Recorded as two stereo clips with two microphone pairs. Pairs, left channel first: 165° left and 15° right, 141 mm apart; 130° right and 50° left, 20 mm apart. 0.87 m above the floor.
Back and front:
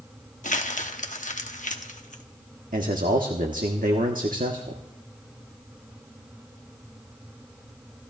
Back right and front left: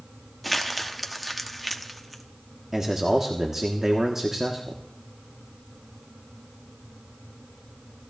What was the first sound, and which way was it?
Crumpling, 145° left.